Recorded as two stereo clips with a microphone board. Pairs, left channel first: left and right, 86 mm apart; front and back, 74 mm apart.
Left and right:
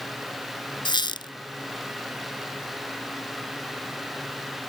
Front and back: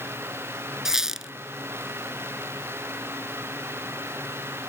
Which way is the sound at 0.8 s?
95° left.